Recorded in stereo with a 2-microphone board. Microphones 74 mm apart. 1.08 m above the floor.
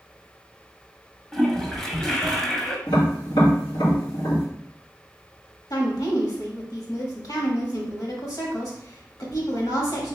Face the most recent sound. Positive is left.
turn(degrees=60)  # may be behind; listen again after turning